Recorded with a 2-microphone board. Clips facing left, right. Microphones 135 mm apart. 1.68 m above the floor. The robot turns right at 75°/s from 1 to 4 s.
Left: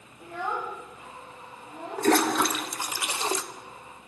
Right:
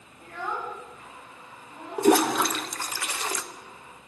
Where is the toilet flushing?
15° right (ahead or behind), 0.5 m; by 3.4 s 25° left (ahead or behind), 0.5 m.